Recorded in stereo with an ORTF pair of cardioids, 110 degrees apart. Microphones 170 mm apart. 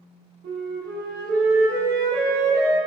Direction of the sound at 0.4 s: 65° right.